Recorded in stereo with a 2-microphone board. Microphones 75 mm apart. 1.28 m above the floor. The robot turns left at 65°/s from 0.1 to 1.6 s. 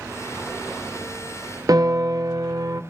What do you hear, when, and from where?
1.7 s a piano: 55° right (ahead or behind), 0.6 m